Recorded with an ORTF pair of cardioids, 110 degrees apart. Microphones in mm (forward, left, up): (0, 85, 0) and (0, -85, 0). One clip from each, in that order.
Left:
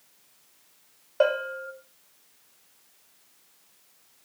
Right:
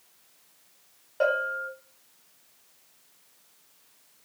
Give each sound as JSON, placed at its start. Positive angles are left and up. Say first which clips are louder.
{"t": 1.2, "sound": "a bell", "louder": "left 1 dB", "azimuth_deg": 30, "distance_m": 1.0}